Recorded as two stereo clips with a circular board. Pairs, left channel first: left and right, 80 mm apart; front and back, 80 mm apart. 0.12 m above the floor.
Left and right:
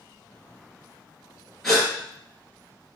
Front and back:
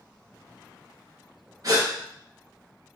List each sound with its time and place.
1.6 s a gasp: 175° left, 1.8 m